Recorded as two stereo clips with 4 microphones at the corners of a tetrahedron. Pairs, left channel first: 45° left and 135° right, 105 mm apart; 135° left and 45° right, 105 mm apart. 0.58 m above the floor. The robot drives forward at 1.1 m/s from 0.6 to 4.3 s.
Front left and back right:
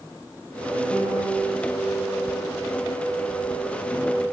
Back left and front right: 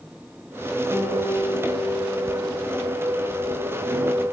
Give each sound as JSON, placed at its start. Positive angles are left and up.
{"t": 0.9, "sound": "a piano", "azimuth_deg": 20, "distance_m": 4.0}